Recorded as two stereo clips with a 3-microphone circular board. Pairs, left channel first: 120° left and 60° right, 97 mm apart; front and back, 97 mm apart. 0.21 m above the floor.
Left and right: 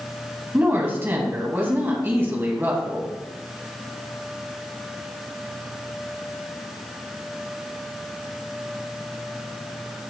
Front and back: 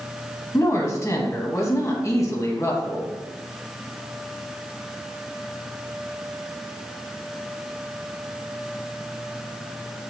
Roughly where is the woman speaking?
Ahead.